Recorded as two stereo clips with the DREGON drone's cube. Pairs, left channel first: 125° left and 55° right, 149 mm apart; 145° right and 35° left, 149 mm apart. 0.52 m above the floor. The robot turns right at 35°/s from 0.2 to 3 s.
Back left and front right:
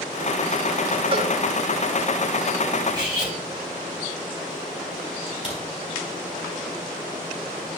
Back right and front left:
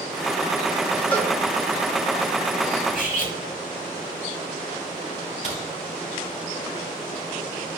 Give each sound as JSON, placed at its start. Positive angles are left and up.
{"t": 1.1, "sound": "a cowbell", "azimuth_deg": -75, "distance_m": 1.5}
{"t": 2.9, "sound": "cutlery clinking", "azimuth_deg": -120, "distance_m": 2.0}
{"t": 5.4, "sound": "a crack", "azimuth_deg": 170, "distance_m": 3.5}